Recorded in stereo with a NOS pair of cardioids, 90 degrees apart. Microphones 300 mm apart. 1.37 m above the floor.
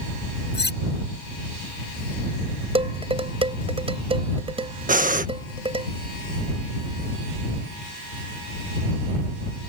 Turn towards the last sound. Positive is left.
turn(degrees=-25)